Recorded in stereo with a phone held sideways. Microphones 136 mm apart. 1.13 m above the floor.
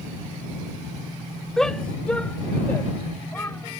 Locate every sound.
1.6 s a shout: 5° left (ahead or behind); by 3.8 s 15° left (ahead or behind)